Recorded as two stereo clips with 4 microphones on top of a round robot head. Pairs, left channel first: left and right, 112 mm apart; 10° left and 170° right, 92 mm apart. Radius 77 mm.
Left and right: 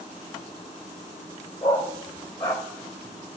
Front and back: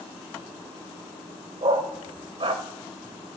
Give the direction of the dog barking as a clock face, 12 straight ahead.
7 o'clock.